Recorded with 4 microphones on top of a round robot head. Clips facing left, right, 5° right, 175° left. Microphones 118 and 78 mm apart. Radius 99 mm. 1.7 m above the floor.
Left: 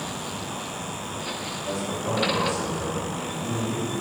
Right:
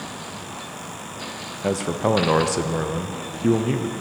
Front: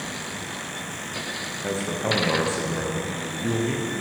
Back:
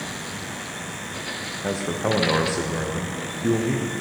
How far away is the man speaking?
About 1.0 m.